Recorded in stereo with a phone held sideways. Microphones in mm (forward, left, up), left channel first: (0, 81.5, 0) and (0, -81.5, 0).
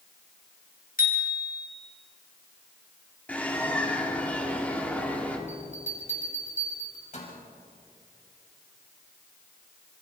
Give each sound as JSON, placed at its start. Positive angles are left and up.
{"t": 1.0, "sound": "a bicycle bell", "side_deg": 60, "distance_m": 4.5}
{"t": 3.3, "sound": "a bird", "side_deg": 10, "distance_m": 3.0}
{"t": 5.5, "sound": "a bell", "side_deg": 50, "distance_m": 5.5}